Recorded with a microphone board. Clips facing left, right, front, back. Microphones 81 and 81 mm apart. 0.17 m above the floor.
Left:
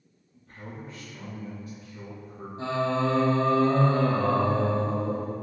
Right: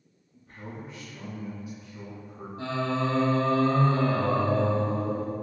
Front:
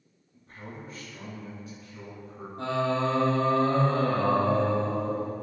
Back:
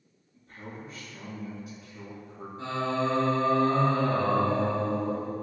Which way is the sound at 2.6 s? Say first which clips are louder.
Left 2 dB, front 2 dB; 25° left.